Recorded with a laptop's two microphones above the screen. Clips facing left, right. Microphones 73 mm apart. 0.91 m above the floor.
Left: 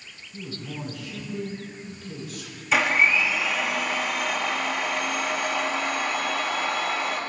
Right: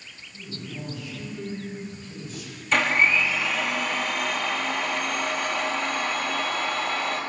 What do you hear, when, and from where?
0.3 s a man speaking: 80° left, 7 m
2.7 s a blender: 5° left (ahead or behind), 1.4 m